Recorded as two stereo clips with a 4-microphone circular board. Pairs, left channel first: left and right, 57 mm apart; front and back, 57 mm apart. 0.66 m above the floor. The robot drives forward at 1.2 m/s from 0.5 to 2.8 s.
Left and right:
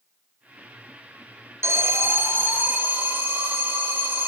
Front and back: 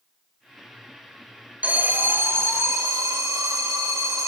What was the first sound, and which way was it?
An alarm, 120° right.